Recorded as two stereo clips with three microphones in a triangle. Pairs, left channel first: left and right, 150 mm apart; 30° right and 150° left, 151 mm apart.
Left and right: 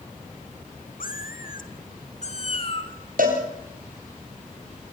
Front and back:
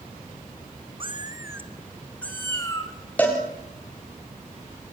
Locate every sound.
1.0 s a cat meowing: 100° left, 1.8 m; by 2.9 s 35° left, 3 m
3.2 s a cowbell: 110° right, 7.5 m